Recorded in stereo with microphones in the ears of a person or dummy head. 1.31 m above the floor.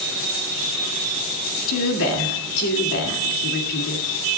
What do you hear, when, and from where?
1.7 s a woman speaking: 75° left (ahead or behind), 2 m